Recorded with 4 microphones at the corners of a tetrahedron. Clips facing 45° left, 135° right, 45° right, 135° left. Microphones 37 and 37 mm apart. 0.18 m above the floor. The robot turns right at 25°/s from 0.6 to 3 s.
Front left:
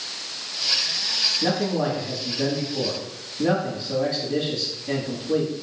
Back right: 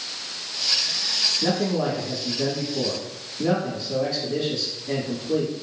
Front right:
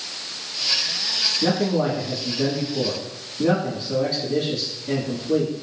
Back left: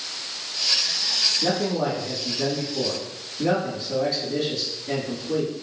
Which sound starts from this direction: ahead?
A man speaking, at 1.4 s.